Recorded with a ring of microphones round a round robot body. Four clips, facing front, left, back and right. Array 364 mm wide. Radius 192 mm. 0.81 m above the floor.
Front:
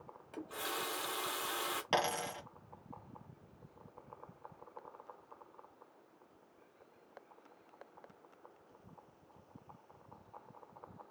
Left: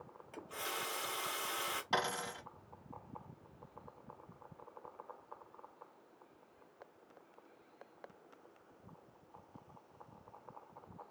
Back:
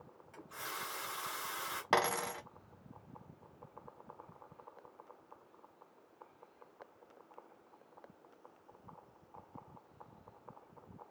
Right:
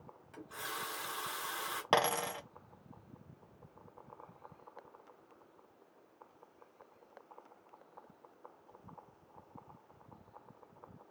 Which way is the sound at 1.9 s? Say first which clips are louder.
Right 7 dB, back 3 dB; 110° right.